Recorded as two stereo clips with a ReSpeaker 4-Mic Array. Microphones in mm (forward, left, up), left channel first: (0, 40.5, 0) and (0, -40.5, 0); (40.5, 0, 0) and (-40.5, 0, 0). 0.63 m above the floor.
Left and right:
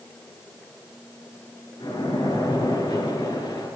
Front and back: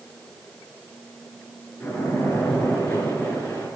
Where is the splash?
65° left, 5.5 m.